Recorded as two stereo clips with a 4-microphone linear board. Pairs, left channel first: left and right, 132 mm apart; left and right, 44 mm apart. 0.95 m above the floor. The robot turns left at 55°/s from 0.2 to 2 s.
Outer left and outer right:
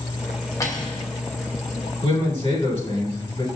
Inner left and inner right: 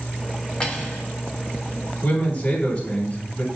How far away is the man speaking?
About 1.1 m.